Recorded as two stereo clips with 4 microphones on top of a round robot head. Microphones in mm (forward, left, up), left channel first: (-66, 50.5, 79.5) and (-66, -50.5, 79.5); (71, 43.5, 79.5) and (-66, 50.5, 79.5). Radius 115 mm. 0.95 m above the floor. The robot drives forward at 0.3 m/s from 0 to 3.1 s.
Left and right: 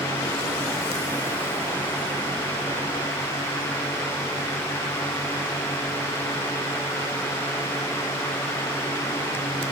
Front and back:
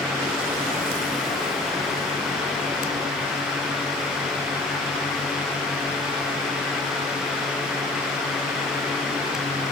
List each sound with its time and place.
Only background noise.